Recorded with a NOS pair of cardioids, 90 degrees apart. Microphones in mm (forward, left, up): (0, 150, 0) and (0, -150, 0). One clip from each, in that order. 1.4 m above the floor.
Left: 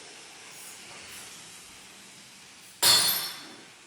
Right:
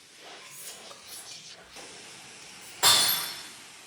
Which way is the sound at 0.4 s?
25° right.